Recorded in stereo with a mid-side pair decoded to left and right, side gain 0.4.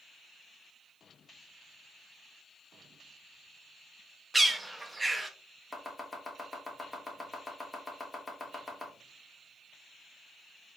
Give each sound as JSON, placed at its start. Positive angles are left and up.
{"t": 4.3, "sound": "a bird", "azimuth_deg": -15, "distance_m": 0.7}
{"t": 5.7, "sound": "chopping", "azimuth_deg": 15, "distance_m": 1.5}